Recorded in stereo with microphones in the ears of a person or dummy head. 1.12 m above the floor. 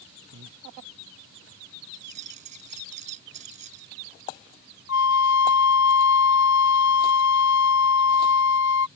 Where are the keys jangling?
40° right (ahead or behind).